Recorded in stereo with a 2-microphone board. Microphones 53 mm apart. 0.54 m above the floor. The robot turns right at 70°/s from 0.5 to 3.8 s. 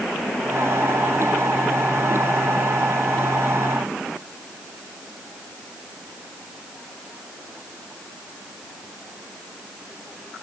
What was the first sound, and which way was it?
Only background noise.